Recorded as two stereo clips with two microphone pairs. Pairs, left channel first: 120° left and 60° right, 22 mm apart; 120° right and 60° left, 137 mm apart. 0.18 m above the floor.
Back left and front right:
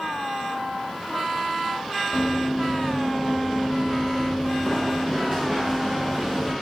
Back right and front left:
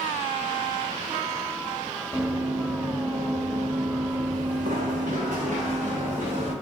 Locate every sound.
2.1 s running footsteps: 135° left, 1.0 m; by 6.5 s 25° left, 1.9 m